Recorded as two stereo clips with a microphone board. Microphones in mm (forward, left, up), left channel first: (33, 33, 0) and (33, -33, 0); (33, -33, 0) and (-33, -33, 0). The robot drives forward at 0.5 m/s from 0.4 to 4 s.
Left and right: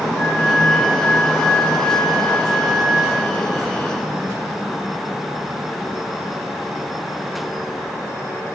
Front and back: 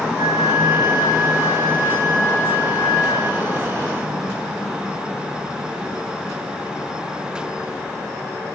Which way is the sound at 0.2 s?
170° left.